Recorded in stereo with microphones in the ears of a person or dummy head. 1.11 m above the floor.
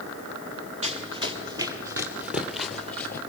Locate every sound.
0.8 s running footsteps: 30° right (ahead or behind), 1.8 m; by 3.2 s 10° left (ahead or behind), 1.7 m